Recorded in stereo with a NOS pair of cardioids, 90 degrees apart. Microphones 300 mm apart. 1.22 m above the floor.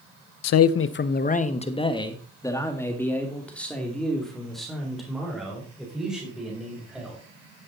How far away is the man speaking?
About 0.7 m.